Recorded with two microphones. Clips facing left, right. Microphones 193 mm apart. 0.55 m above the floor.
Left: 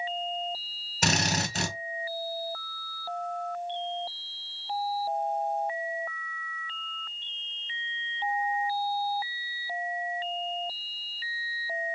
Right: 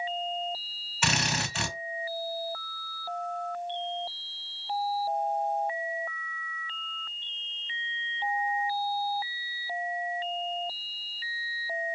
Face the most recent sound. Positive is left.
turn(degrees=40)  # may be behind; listen again after turning